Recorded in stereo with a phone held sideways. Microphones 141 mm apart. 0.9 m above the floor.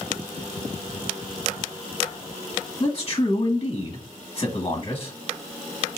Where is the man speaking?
35° left (ahead or behind), 1.1 m.